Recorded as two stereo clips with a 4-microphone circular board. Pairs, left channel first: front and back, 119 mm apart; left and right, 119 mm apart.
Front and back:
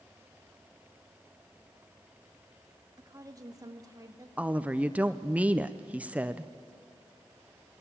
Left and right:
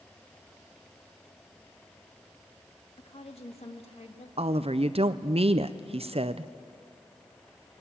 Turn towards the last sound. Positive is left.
turn(degrees=-105)